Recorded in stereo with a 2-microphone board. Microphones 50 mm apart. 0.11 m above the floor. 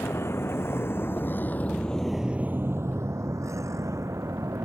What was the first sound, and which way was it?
A vehicle, 60° left (ahead or behind).